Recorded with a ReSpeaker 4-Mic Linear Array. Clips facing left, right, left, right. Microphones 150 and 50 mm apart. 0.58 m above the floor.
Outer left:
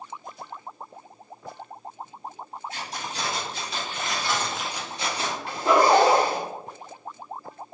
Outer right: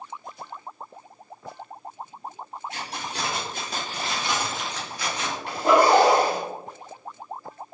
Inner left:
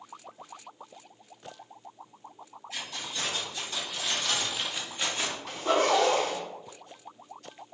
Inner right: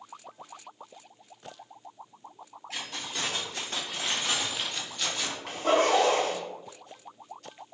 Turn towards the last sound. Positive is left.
turn(degrees=-70)  # may be behind; listen again after turning